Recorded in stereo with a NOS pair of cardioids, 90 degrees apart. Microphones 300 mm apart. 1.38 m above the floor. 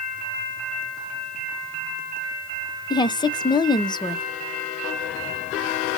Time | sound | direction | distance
2.9 | a woman speaking | 15° left | 0.6 m